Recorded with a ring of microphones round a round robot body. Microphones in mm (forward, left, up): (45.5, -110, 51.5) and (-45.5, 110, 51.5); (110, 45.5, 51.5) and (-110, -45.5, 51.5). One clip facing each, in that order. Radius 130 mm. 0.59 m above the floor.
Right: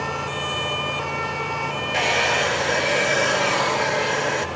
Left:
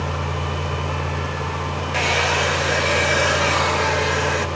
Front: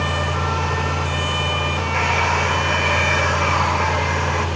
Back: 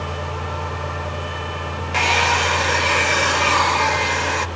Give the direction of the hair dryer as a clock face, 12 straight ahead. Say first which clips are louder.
Even, back 4 dB; 5 o'clock.